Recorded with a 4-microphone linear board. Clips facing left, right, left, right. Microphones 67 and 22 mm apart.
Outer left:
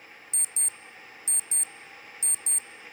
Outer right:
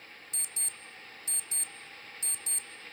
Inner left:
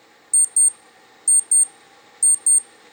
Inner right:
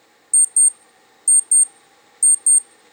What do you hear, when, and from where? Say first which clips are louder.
0.3 s an alarm clock: outer left 4 dB, inner right 2 dB; 20° left (ahead or behind), 0.6 m